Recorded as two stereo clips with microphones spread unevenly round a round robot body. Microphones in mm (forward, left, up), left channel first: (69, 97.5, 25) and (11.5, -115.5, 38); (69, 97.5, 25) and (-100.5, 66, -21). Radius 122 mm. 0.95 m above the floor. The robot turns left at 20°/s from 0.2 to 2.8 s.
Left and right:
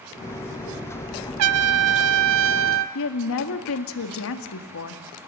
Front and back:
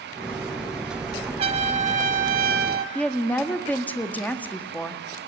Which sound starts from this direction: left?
A woman speaking, at 3.0 s.